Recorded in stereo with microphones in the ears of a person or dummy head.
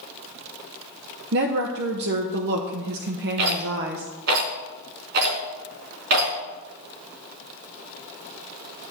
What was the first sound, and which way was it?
A woman speaking, 60° right (ahead or behind).